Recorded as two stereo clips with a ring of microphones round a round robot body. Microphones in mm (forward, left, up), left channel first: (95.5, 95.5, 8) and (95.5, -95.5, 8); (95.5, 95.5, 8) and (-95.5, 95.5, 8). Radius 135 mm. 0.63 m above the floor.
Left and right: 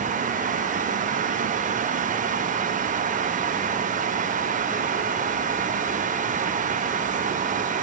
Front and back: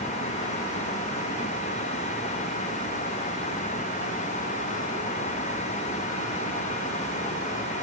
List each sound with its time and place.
Only background noise.